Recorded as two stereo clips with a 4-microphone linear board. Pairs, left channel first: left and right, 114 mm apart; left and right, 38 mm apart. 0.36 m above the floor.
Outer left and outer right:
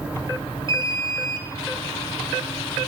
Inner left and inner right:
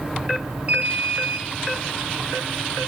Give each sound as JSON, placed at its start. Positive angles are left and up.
{"t": 0.7, "sound": "an alarm", "side_deg": -40, "distance_m": 2.0}